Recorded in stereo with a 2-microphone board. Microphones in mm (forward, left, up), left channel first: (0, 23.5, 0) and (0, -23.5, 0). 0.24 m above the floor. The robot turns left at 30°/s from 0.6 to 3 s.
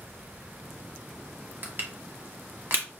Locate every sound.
1.6 s crushing: 45° right (ahead or behind), 1.1 m